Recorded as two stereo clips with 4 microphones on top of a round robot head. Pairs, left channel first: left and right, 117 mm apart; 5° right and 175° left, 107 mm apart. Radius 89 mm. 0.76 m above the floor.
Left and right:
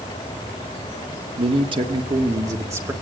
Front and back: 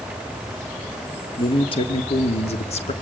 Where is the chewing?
No chewing in this recording.